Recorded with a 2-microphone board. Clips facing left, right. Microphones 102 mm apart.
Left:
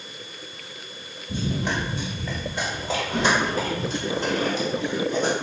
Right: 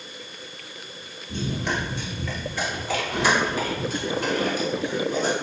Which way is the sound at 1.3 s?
15° left (ahead or behind).